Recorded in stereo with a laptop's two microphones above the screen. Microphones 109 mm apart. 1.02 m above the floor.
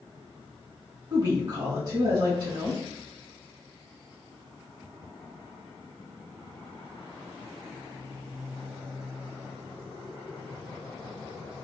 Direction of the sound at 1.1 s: 30° right (ahead or behind).